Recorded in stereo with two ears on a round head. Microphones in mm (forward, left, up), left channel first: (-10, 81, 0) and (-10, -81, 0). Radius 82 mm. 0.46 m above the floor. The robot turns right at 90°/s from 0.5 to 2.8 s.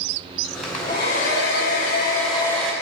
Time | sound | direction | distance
0.6 | a hair dryer | 5° right | 2 m